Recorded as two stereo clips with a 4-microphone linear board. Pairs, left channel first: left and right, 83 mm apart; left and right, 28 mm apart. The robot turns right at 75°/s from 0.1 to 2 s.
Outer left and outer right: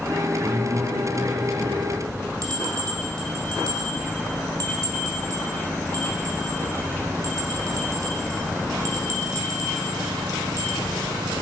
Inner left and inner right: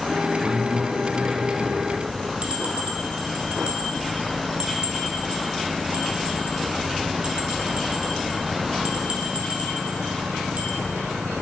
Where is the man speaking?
30° right (ahead or behind), 1.3 m; by 1.9 s 10° left (ahead or behind), 1.3 m.